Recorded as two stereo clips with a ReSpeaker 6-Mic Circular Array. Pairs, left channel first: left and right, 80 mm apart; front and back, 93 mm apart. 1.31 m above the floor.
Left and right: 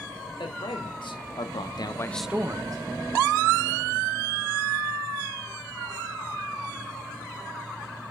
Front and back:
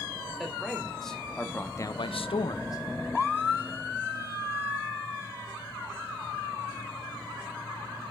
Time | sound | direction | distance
0.4 | a man speaking | 90° left | 2.5 m